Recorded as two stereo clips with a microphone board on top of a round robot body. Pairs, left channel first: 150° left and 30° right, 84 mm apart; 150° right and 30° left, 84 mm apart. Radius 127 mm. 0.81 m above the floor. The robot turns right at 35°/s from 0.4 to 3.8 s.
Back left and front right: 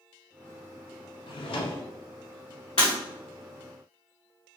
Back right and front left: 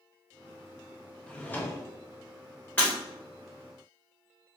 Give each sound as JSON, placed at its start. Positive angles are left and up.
{"t": 1.3, "sound": "a drawer", "azimuth_deg": 130, "distance_m": 0.5}
{"t": 2.8, "sound": "breaking glass", "azimuth_deg": 135, "distance_m": 1.5}